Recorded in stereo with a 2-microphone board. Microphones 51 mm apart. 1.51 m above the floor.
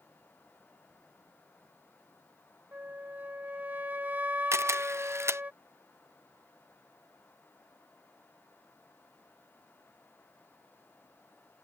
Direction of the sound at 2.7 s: 30° right (ahead or behind).